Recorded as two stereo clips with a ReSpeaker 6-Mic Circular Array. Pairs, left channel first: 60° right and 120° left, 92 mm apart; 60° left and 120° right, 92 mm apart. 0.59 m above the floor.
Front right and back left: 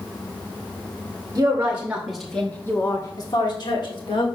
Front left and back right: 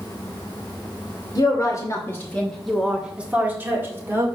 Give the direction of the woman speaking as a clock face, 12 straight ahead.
9 o'clock.